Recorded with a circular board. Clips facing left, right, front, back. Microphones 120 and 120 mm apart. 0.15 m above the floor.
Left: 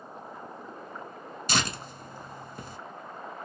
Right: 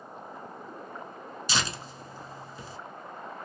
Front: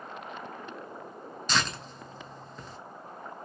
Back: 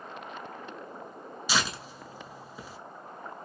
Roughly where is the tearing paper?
Left.